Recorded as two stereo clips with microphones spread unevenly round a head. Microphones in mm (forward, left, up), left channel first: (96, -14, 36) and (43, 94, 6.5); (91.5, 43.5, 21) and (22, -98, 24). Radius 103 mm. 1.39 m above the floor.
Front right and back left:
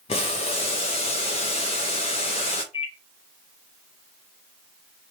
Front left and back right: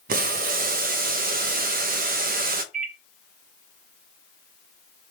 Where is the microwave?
95° right, 0.7 m.